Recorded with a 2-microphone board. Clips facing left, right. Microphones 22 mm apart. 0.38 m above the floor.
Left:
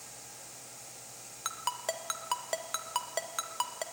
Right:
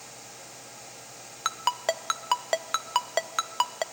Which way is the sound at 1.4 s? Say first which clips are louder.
Right 8 dB; 30° right (ahead or behind).